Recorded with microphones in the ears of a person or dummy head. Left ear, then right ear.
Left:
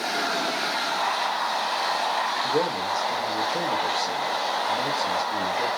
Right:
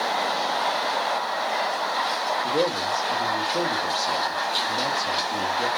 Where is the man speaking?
Centre (ahead or behind), 1.4 m.